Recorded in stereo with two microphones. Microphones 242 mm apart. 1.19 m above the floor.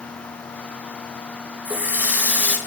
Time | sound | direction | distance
1.6 | a running tap | 5° right (ahead or behind) | 0.7 m